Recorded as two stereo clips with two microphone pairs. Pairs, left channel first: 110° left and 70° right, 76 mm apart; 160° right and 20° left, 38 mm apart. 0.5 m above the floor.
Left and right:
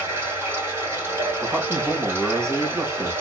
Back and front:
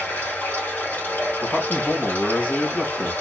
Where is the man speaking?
120° right, 2 m.